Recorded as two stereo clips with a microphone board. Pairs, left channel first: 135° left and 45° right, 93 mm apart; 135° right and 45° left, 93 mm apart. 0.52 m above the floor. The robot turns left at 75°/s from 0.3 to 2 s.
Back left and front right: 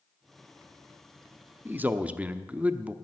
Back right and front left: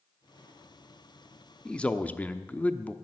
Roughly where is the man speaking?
Right.